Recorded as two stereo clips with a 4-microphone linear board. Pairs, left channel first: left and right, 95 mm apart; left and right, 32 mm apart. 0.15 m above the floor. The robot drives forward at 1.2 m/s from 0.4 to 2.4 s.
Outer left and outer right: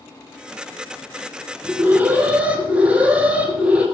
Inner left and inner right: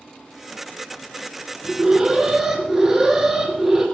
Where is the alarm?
20° right (ahead or behind), 1.8 m; by 3.9 s 15° right (ahead or behind), 2.5 m.